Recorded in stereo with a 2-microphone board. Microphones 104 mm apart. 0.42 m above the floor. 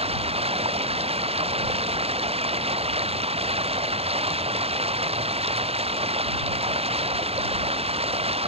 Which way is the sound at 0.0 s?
75° right (ahead or behind).